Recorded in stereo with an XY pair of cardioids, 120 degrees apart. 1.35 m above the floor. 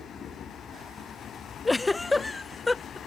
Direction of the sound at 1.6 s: 15° left.